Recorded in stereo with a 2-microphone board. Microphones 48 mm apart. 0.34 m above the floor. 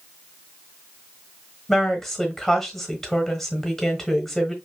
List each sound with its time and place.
1.7 s a woman speaking: 10° left (ahead or behind), 1.2 m